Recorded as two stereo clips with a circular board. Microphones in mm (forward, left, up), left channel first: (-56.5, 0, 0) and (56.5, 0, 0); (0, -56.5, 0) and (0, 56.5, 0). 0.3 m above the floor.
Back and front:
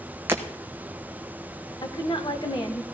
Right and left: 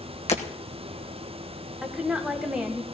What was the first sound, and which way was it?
Breaking glass, 70° right.